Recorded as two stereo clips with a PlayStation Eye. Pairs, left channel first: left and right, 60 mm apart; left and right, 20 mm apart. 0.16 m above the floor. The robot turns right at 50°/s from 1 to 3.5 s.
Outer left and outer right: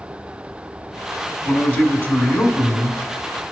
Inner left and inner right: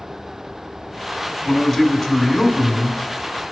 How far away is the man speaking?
About 1.1 m.